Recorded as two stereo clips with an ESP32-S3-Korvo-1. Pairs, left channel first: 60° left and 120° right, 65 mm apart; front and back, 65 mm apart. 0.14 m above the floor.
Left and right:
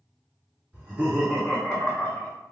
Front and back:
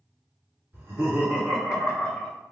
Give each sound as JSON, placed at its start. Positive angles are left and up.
{"t": 0.7, "sound": "laughter", "azimuth_deg": -175, "distance_m": 2.0}